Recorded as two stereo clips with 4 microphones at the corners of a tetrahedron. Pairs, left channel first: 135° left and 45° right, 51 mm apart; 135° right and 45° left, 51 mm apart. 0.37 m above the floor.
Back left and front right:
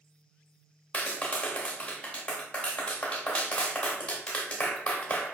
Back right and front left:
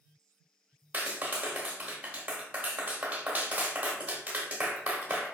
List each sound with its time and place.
0.9 s a clap: 90° left, 0.7 m